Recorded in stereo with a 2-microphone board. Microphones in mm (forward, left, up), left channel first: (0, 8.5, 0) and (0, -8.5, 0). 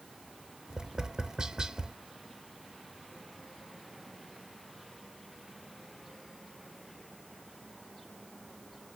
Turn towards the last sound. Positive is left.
turn(degrees=-45)  # may be behind; listen again after turning